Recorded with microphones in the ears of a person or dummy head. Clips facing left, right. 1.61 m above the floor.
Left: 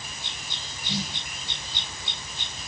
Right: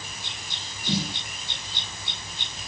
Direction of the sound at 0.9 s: 50° right (ahead or behind).